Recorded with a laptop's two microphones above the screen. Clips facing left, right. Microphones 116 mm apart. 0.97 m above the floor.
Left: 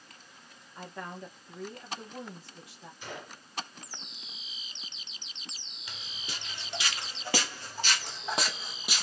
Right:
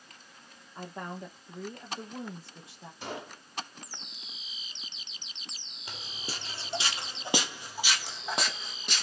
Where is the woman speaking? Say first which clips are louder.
Right 2 dB; 25° right (ahead or behind), 1.2 m.